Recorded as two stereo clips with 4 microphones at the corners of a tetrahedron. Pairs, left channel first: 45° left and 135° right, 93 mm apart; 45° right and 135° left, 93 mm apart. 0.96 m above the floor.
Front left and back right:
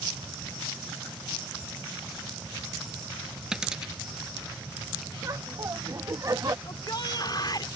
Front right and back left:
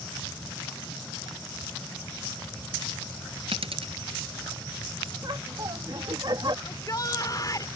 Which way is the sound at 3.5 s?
145° left.